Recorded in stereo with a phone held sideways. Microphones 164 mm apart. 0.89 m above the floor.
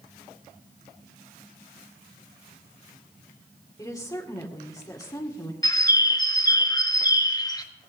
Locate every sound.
3.8 s a woman speaking: 20° left (ahead or behind), 2 m
5.6 s a bird: 25° left (ahead or behind), 1.0 m